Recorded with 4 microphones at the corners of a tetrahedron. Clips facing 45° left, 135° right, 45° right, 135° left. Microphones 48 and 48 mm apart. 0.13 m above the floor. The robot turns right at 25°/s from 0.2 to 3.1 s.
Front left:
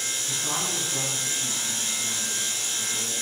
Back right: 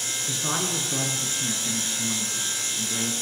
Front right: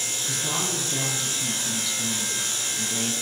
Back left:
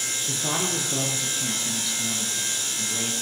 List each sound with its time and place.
0.3 s a man speaking: 175° left, 2.5 m; by 3.1 s 115° right, 2.5 m